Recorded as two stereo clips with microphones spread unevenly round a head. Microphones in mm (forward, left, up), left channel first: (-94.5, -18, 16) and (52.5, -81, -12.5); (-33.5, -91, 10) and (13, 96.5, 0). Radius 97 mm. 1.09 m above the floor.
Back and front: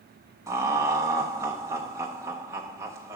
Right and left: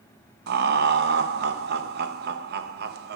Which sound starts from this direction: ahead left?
Laughter, at 0.5 s.